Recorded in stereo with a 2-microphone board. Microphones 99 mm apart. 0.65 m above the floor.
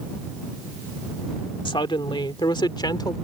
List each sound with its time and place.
1.6 s a woman speaking: 55° left (ahead or behind); by 3.1 s 45° left (ahead or behind)